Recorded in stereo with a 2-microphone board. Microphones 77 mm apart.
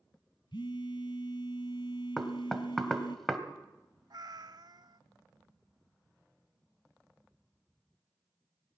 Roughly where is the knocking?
Centre.